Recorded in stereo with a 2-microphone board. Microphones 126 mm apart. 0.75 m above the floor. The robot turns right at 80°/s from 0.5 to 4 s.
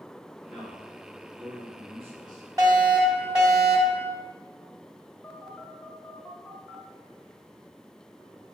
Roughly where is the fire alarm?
Right.